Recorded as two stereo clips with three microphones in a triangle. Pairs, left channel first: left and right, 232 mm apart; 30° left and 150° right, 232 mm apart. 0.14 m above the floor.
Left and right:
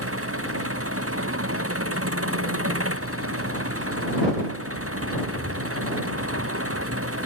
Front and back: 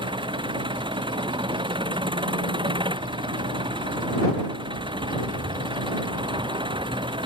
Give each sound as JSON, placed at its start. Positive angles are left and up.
{"t": 0.0, "sound": "an engine running", "azimuth_deg": -80}